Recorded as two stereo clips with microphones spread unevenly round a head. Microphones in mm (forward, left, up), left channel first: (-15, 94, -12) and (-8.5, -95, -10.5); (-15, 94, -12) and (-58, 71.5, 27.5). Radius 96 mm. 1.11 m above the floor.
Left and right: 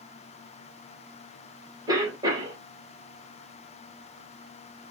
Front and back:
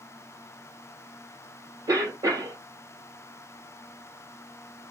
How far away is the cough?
About 1.8 m.